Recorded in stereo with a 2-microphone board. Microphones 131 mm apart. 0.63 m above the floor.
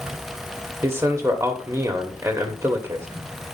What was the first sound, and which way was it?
A man speaking, 20° right (ahead or behind).